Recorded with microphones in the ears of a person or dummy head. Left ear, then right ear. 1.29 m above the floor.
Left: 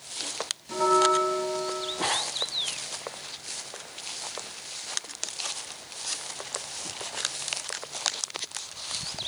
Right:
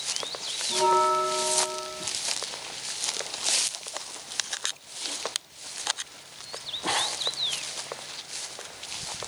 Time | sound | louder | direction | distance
0.7 | a bell | even | 20° left (ahead or behind) | 1.1 m